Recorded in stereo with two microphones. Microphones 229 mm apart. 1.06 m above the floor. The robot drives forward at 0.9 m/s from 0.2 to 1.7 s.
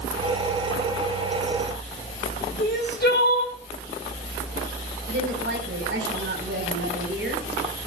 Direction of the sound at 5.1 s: 55° right (ahead or behind).